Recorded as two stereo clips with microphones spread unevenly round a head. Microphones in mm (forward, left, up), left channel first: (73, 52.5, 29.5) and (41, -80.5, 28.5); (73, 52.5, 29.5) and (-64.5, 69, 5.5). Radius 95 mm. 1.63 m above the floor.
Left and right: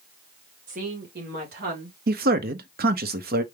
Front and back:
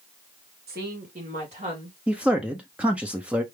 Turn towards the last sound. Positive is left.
turn(degrees=-105)